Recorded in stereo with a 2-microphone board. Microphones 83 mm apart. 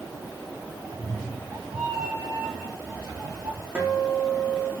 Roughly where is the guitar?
Centre.